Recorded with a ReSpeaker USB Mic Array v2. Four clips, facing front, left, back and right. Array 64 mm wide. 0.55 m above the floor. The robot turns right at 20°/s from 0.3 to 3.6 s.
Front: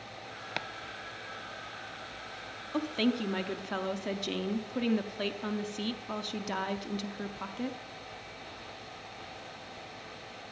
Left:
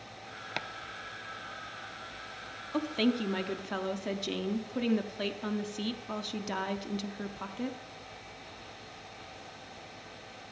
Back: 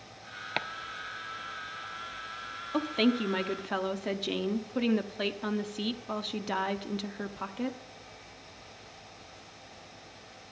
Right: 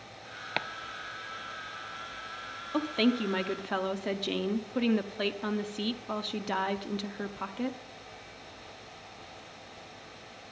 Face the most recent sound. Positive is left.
turn(degrees=-130)